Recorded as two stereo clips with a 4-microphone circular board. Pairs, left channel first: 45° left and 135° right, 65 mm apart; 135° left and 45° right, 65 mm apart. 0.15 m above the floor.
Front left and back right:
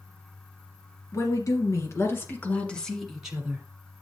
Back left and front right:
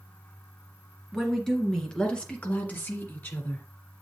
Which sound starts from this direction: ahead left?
A woman speaking, at 1.1 s.